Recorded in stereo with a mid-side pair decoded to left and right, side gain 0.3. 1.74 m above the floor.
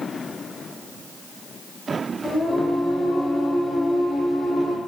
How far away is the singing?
About 1.4 m.